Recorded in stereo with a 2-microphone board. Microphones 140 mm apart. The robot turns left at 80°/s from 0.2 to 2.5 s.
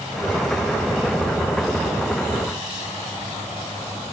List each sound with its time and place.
Only background noise.